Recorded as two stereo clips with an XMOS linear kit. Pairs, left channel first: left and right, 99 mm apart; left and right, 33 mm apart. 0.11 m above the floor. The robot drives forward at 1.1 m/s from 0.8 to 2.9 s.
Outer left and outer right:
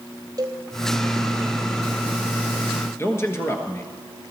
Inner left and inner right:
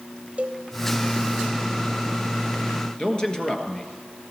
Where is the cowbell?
45° right (ahead or behind), 1.0 m.